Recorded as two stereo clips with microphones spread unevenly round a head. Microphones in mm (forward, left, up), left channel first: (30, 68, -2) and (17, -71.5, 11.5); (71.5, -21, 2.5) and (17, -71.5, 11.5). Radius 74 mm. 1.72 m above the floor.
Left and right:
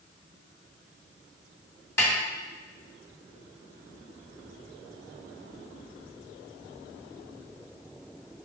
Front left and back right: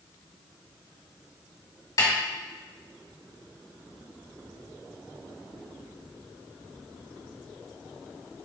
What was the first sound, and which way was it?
A snare drum, 10° left.